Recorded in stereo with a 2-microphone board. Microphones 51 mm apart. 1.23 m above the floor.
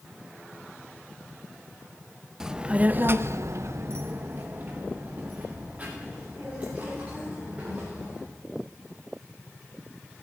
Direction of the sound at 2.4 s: 10° right (ahead or behind).